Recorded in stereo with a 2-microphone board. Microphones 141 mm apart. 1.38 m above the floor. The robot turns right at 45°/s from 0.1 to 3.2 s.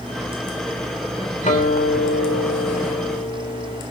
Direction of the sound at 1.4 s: 60° left.